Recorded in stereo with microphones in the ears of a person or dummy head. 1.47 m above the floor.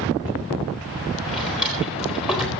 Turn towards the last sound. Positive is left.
turn(degrees=-5)  # may be behind; listen again after turning